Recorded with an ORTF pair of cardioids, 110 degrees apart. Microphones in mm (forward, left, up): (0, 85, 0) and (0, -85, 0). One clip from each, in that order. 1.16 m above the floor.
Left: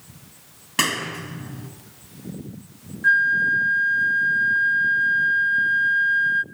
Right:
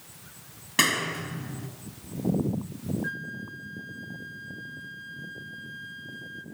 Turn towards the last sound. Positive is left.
turn(degrees=45)